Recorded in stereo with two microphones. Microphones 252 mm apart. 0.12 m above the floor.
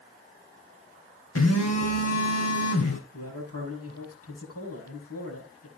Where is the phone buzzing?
80° left, 2.5 m.